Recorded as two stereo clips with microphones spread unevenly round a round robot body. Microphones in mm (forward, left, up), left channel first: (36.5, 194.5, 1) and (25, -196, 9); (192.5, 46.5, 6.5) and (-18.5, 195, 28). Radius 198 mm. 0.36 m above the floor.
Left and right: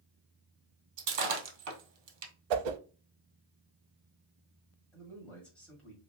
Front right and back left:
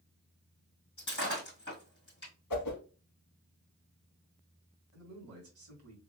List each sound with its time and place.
1.0 s breaking glass: 115° right, 1.9 m
2.5 s a whoosh: 75° right, 0.6 m
4.9 s a man speaking: 175° left, 1.7 m